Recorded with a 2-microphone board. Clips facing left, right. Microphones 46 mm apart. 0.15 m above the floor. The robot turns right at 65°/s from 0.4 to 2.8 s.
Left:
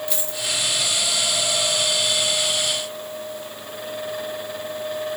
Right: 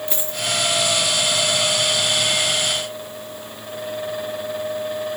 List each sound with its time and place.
0.1 s a dropped coin: 30° right (ahead or behind), 1.3 m; by 0.5 s 25° right (ahead or behind), 1.3 m